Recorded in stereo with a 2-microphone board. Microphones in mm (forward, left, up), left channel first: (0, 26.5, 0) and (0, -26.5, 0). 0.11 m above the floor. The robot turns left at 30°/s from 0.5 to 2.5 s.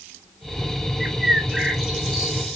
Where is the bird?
15° right (ahead or behind), 0.9 m; by 2.6 s centre (ahead or behind), 0.9 m.